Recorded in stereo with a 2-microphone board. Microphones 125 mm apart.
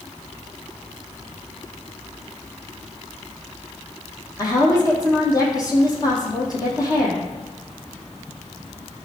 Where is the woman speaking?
30° left (ahead or behind), 4 m.